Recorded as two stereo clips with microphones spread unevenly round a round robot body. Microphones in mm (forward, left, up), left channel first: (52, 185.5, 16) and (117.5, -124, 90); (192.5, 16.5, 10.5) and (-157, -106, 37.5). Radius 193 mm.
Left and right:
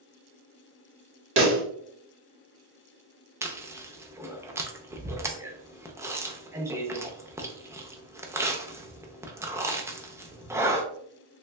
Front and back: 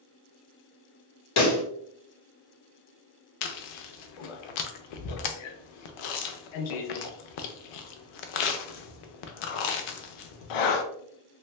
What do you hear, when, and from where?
1.4 s a pop: 20° right, 1.0 m
3.4 s chewing: 5° left, 0.6 m